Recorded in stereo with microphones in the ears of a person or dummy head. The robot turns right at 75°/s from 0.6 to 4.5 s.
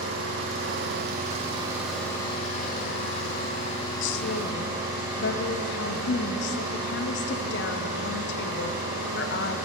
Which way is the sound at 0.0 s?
100° right.